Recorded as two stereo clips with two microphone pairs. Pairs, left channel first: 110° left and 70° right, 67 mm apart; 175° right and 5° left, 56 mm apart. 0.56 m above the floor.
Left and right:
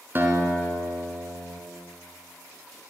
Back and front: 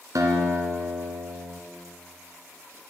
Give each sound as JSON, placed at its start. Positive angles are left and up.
{"t": 0.1, "sound": "a guitar", "azimuth_deg": -10, "distance_m": 1.8}